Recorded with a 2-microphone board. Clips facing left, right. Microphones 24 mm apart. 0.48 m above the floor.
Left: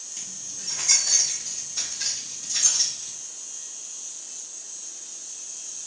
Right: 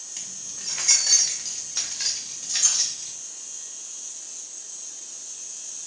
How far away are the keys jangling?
About 1.0 m.